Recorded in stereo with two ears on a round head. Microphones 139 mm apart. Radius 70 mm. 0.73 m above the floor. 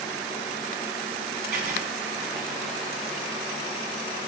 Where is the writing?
65° right (ahead or behind), 1.6 m.